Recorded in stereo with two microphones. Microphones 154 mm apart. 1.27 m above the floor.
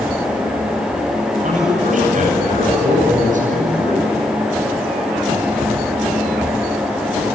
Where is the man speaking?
55° right (ahead or behind), 9 m.